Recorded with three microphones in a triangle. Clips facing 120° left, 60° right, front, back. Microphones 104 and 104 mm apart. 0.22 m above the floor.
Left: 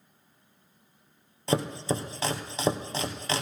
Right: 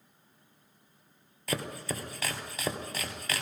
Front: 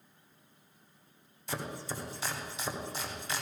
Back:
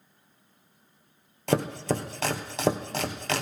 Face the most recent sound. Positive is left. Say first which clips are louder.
# left 7 dB, back 13 dB
turn(degrees=-175)